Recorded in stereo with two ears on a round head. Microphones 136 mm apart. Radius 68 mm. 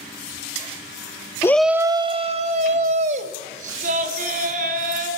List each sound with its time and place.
1.4 s a shout: 20° left (ahead or behind), 0.7 m; by 5.1 s 60° right (ahead or behind), 5 m